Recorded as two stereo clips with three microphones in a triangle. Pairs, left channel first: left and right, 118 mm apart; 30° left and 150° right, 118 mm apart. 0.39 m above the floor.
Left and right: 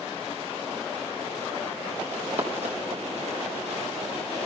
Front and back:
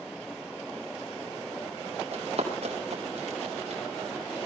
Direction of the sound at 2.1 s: 115° right.